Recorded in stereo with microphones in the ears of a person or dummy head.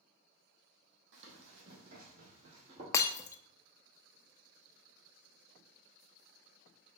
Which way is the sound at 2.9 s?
15° left (ahead or behind).